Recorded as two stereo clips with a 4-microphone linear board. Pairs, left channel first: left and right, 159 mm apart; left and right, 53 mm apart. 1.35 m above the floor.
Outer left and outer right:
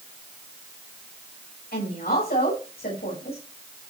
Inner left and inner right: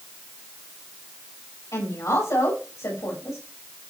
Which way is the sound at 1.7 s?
80° left.